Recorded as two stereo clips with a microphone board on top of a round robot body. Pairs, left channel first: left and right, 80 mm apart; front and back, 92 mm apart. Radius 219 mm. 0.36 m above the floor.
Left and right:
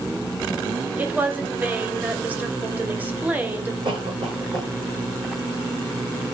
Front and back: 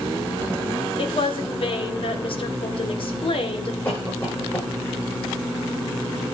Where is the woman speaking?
20° right, 2 m.